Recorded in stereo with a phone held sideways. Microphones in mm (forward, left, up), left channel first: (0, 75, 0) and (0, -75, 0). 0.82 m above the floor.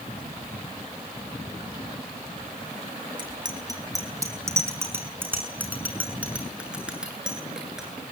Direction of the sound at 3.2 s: 30° right (ahead or behind).